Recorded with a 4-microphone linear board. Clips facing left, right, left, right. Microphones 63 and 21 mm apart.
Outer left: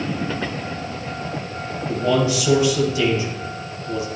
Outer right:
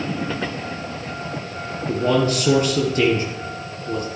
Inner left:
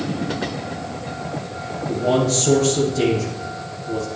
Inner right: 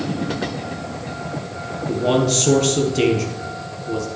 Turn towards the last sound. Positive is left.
turn(degrees=-50)  # may be behind; listen again after turning